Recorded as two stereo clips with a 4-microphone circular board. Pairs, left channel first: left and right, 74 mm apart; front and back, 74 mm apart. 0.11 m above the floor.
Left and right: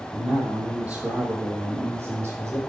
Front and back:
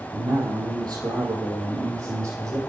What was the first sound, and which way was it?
A man speaking, 170° right.